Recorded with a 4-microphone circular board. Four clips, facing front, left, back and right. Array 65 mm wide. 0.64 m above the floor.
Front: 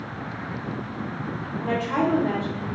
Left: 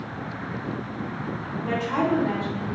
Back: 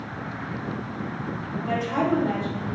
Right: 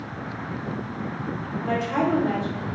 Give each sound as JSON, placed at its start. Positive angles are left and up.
{"t": 1.6, "sound": "a woman speaking", "azimuth_deg": 20, "distance_m": 1.5}